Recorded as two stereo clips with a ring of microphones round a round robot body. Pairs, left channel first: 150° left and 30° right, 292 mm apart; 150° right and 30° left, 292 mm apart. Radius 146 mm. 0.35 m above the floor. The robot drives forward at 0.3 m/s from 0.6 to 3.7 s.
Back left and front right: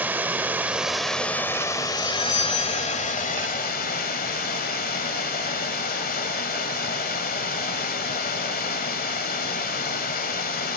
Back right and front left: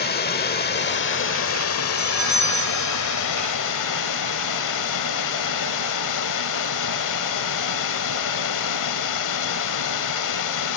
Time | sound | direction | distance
0.0 | running water | 110° right | 1.1 m
2.0 | a doorbell | 120° left | 9 m